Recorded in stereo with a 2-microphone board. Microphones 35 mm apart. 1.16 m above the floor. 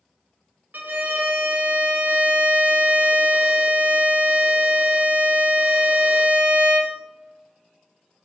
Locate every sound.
0.7 s a violin: 70° right (ahead or behind), 0.6 m